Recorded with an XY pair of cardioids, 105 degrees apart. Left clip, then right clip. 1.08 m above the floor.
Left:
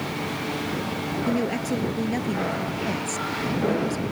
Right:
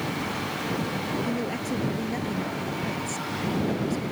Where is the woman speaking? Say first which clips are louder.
Left 4 dB; 25° left.